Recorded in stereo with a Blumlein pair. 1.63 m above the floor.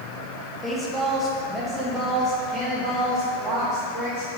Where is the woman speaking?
5° left, 1.7 m; by 4.3 s 30° right, 4 m.